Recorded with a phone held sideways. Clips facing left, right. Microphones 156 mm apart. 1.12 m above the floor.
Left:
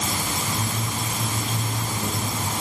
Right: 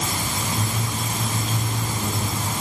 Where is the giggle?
No giggle in this recording.